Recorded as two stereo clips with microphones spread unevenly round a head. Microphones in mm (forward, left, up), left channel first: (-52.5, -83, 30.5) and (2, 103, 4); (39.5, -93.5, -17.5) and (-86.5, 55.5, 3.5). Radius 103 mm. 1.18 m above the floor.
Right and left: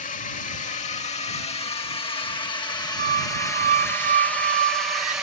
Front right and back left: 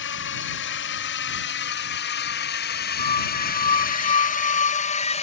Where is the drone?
55° right; by 5.2 s 5° right.